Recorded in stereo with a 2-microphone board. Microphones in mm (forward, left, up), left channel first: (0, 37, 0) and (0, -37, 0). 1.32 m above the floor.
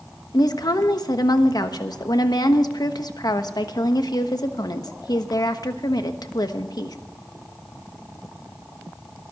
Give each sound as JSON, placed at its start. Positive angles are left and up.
{"t": 0.3, "sound": "a woman speaking", "side_deg": 70, "distance_m": 1.1}